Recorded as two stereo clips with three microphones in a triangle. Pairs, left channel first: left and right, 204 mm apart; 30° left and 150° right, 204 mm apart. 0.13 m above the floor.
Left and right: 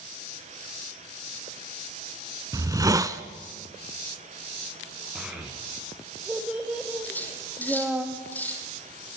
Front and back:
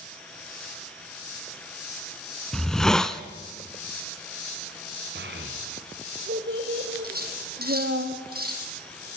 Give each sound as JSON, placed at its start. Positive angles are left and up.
{"t": 2.5, "sound": "a hiss", "azimuth_deg": -55, "distance_m": 0.9}
{"t": 5.2, "sound": "a child speaking", "azimuth_deg": -175, "distance_m": 4.0}
{"t": 7.0, "sound": "cutlery clinking", "azimuth_deg": 170, "distance_m": 3.5}